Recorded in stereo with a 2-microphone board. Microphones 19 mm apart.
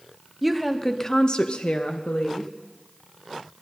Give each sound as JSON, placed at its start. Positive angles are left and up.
{"t": 0.4, "sound": "a woman speaking", "side_deg": -10, "distance_m": 1.4}